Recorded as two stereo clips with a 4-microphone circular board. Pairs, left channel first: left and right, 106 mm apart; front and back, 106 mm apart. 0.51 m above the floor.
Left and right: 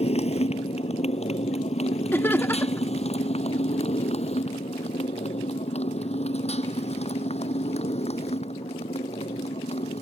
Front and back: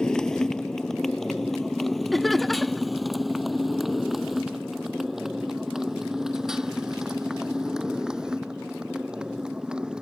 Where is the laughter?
85° left.